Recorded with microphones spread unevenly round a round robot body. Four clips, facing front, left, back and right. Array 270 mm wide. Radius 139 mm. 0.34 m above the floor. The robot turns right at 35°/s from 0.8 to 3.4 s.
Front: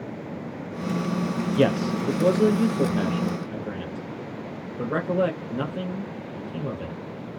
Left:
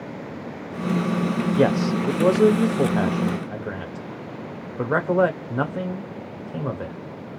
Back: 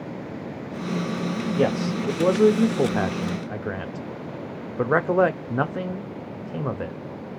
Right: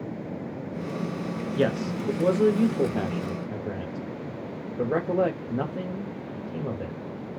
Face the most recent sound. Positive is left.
turn(degrees=135)